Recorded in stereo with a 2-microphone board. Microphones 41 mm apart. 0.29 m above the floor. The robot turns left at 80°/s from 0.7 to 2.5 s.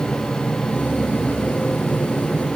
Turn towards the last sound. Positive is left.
No sound to turn to.